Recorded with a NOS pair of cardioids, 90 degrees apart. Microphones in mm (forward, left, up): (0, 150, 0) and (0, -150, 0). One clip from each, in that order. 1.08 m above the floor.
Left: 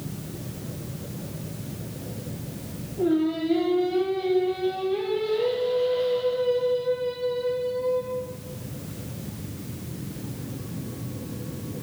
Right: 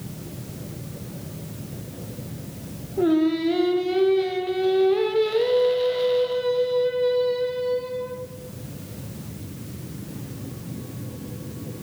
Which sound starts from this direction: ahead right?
Singing, at 3.0 s.